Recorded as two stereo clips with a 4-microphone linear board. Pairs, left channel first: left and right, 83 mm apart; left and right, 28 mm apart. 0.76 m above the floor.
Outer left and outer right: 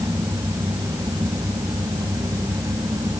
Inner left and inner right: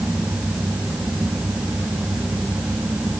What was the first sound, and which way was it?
Only background noise.